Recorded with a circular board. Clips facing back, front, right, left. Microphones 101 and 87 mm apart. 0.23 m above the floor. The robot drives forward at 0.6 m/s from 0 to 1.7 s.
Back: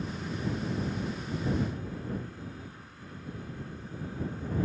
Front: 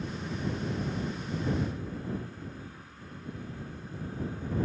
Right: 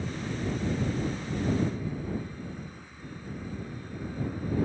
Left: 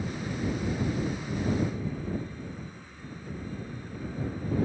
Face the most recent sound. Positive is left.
No sound to turn to.